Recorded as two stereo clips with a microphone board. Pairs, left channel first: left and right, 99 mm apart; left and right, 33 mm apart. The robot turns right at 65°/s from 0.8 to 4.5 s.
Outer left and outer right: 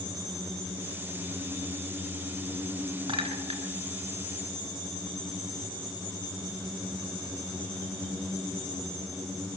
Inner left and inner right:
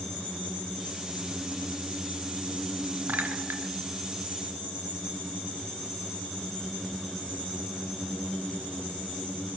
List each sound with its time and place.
3.1 s a clink: 65° right (ahead or behind), 1.7 m; by 3.6 s 70° right (ahead or behind), 1.7 m